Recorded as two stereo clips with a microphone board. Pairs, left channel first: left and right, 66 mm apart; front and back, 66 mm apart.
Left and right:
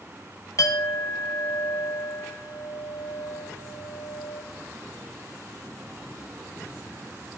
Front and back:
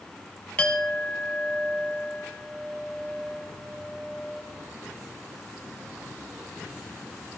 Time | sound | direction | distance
0.6 | a clink | 70° left | 1.2 m